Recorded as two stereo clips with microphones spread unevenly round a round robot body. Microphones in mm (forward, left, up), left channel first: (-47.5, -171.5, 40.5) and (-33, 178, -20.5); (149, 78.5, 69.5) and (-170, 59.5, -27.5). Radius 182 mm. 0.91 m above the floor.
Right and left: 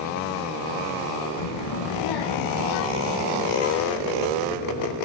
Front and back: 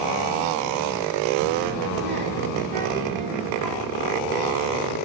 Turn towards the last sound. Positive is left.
turn(degrees=-95)